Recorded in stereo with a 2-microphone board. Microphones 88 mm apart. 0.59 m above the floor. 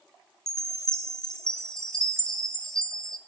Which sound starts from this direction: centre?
A chime, at 0.5 s.